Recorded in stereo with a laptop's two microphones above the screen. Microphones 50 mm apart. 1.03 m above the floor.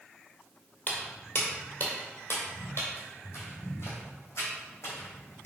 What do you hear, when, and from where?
0.9 s footsteps: 30° left (ahead or behind), 1.2 m; by 5.5 s 55° left (ahead or behind), 3 m